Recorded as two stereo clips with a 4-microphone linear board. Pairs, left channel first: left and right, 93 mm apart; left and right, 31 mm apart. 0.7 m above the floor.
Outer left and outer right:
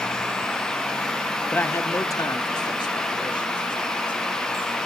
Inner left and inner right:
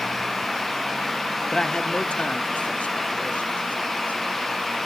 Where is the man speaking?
15° left (ahead or behind), 0.8 m; by 4.2 s 60° left (ahead or behind), 3 m.